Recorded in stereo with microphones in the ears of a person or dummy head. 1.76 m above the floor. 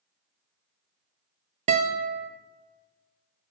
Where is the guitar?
30° right (ahead or behind), 0.5 m.